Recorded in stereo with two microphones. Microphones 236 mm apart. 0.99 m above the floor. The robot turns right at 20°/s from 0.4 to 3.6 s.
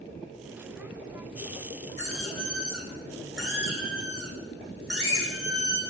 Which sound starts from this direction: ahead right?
A squeak, at 2.0 s.